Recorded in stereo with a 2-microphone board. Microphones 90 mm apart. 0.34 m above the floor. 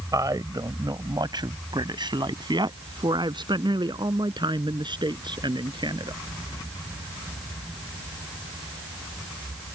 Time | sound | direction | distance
0.1 | a man speaking | 45° right (ahead or behind) | ?